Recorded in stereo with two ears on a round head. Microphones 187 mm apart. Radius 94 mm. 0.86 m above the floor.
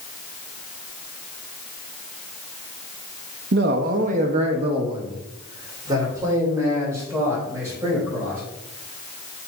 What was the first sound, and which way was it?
A man speaking, 55° right (ahead or behind).